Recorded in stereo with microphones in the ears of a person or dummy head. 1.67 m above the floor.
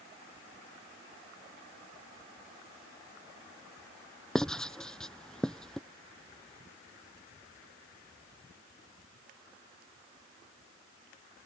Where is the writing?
Centre (ahead or behind).